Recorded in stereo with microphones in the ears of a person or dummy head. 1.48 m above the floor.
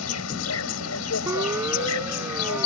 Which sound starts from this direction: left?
An insect, at 0.0 s.